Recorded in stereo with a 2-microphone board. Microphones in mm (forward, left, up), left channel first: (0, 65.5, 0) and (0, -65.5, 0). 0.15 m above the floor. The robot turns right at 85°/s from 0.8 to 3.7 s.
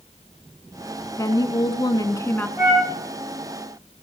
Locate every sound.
1.2 s a woman speaking: 50° left, 1.2 m; by 2.5 s 160° left, 1.2 m
2.6 s a flute: 20° right (ahead or behind), 6.5 m; by 2.9 s 10° left (ahead or behind), 6.5 m